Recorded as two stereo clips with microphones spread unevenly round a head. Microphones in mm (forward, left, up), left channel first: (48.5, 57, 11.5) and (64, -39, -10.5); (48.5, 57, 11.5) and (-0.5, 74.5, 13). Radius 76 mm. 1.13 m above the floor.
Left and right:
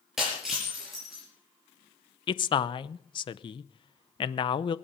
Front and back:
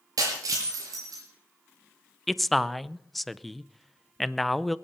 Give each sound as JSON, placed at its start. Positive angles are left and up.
{"t": 0.2, "sound": "breaking glass", "azimuth_deg": -170, "distance_m": 4.5}
{"t": 2.3, "sound": "a man speaking", "azimuth_deg": 65, "distance_m": 0.7}